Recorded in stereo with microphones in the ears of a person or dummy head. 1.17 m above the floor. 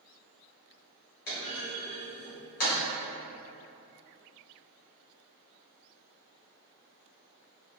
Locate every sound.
1.3 s a clunk: 50° left (ahead or behind), 1.2 m